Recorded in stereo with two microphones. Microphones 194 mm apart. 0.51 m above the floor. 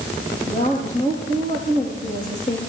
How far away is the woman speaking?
About 10 m.